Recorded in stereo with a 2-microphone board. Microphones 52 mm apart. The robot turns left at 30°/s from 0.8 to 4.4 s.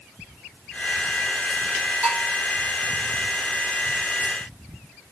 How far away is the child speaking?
I don't hear a child speaking.